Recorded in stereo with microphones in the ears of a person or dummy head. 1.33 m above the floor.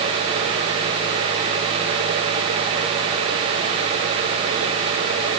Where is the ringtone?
No ringtone in this recording.